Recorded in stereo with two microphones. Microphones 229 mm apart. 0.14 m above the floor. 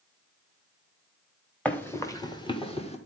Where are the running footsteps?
5° left (ahead or behind), 1.7 m; by 3.0 s 30° left (ahead or behind), 2 m.